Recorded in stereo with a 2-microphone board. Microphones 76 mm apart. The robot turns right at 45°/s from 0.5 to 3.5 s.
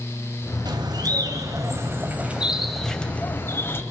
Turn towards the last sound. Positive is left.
turn(degrees=35)